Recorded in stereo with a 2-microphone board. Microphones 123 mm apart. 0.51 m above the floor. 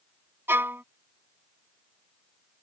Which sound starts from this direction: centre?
A violin, at 0.5 s.